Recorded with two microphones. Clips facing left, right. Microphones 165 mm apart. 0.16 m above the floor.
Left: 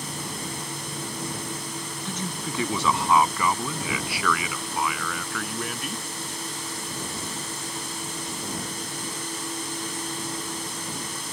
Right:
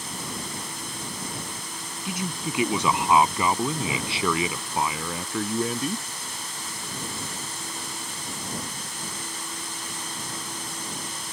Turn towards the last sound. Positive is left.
turn(degrees=-30)  # may be behind; listen again after turning